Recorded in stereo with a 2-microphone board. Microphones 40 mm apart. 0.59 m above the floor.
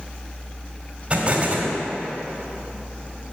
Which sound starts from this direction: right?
An explosion, at 1.1 s.